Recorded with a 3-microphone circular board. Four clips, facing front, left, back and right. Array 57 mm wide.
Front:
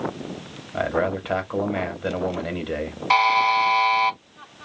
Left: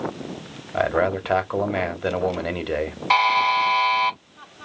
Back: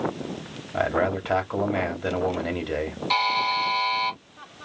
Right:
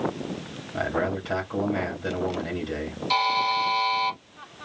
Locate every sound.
0.7 s a man speaking: 90° left, 1.1 m
3.1 s a buzzer: 50° left, 0.8 m